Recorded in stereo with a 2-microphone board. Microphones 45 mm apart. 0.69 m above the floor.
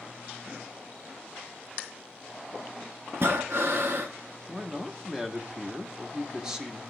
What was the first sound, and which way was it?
Breathing, 55° right (ahead or behind).